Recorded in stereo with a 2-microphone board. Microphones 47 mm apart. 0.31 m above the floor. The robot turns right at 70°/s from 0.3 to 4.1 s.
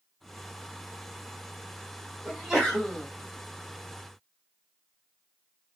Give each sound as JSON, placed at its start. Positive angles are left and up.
{"t": 2.2, "sound": "a sneeze", "azimuth_deg": -20, "distance_m": 1.7}